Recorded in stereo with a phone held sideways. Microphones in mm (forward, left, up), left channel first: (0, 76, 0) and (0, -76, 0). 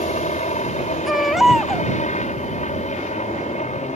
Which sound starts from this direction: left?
A helicopter, at 0.0 s.